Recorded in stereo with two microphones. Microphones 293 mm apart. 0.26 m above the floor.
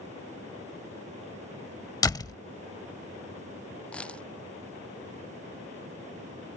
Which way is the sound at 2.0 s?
15° left (ahead or behind).